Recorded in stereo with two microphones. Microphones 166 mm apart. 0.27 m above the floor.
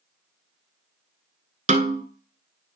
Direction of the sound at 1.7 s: 45° right (ahead or behind).